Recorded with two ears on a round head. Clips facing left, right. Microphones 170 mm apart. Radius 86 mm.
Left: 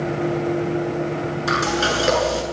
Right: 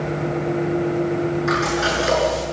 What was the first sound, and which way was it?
Frying, 45° left (ahead or behind).